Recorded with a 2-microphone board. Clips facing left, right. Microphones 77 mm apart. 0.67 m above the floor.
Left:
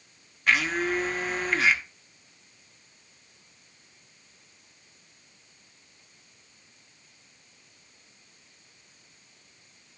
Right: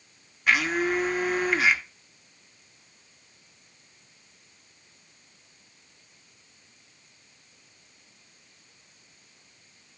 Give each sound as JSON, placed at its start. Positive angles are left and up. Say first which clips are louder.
{"t": 0.5, "sound": "a blender", "louder": "right 1 dB", "side_deg": -5, "distance_m": 1.0}